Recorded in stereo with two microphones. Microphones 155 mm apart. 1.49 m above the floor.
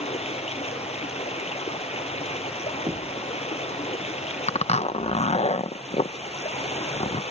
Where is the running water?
40° left (ahead or behind).